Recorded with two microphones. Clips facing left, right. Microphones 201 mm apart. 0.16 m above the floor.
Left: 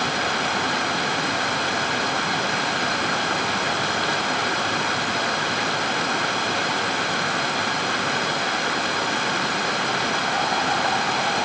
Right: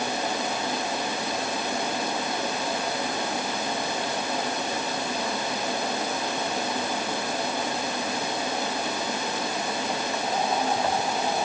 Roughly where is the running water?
Left.